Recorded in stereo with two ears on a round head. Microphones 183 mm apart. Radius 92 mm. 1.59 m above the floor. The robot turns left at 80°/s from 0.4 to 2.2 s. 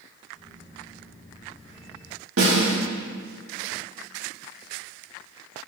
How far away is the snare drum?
About 3.5 m.